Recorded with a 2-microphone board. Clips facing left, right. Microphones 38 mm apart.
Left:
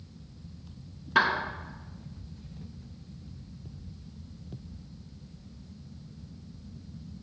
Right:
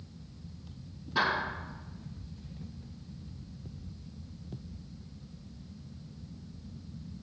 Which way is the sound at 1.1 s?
75° left (ahead or behind).